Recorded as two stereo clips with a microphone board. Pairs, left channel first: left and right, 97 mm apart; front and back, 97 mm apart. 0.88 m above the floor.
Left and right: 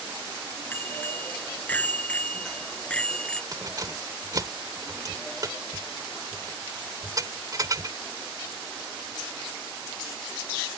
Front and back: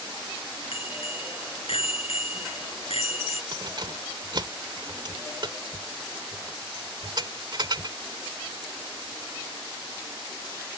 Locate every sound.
0.7 s a bicycle bell: 20° left; by 3.4 s 10° left
3.5 s keys jangling: 140° right